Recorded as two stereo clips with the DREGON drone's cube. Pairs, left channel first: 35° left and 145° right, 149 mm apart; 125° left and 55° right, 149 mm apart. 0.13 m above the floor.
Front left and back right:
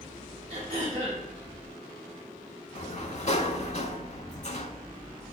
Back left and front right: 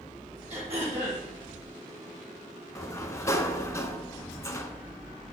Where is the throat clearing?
100° right, 3 m.